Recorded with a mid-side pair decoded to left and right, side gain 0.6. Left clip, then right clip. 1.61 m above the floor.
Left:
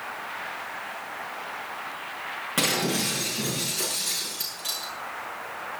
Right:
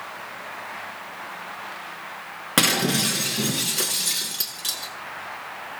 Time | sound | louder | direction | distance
2.6 | breaking glass | right 5 dB | 50° right | 7 m